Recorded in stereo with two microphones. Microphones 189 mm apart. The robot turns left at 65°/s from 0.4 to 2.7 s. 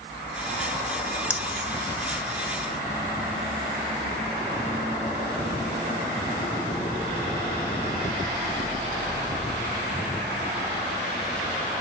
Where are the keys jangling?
10° left (ahead or behind), 1.0 m; by 1.7 s 5° left (ahead or behind), 1.0 m.